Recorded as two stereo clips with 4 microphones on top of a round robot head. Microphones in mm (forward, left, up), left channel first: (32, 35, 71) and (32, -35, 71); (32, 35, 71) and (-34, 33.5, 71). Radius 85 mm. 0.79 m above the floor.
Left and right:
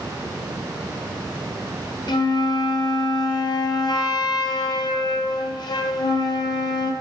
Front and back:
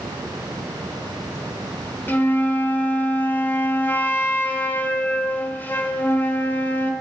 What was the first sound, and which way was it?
A flute, 65° left.